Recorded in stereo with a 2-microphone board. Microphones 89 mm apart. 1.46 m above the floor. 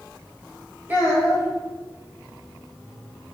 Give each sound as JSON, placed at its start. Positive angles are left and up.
{"t": 0.9, "sound": "a child speaking", "side_deg": -20, "distance_m": 0.9}